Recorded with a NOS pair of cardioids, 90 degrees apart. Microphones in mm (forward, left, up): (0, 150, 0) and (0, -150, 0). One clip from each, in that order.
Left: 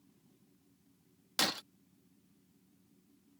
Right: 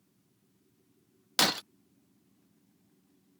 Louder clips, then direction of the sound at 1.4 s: Right 6 dB; 30° right.